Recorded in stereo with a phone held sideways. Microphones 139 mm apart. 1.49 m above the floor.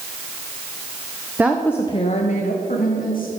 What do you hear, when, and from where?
1.4 s a woman speaking: 15° right (ahead or behind), 0.7 m; by 3.3 s 85° left, 1.7 m